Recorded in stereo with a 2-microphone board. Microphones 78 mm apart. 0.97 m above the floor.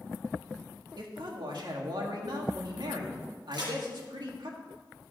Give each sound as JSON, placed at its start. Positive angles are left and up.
{"t": 1.0, "sound": "a man speaking", "side_deg": -70, "distance_m": 2.0}
{"t": 3.5, "sound": "a crack", "side_deg": -70, "distance_m": 4.5}